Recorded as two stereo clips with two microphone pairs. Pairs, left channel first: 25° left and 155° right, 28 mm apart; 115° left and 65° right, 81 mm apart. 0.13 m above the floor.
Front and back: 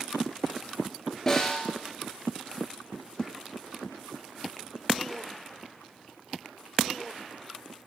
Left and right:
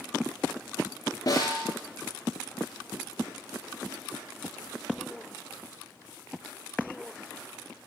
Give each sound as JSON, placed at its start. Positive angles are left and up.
{"t": 1.3, "sound": "a snare drum", "azimuth_deg": 100, "distance_m": 2.0}